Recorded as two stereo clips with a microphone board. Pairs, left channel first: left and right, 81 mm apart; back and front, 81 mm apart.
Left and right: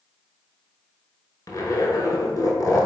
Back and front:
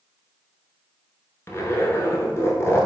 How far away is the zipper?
About 0.7 m.